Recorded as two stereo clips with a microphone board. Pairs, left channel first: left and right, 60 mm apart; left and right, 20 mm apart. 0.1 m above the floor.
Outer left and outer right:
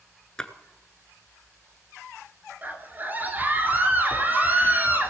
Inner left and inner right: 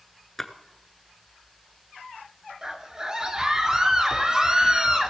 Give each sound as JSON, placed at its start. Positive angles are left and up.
{"t": 0.4, "sound": "a splash", "side_deg": 15, "distance_m": 1.0}
{"t": 2.6, "sound": "a scream", "side_deg": -30, "distance_m": 2.0}